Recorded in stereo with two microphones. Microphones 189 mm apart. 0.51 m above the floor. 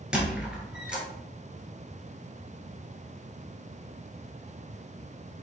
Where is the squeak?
5° right (ahead or behind), 1.4 m.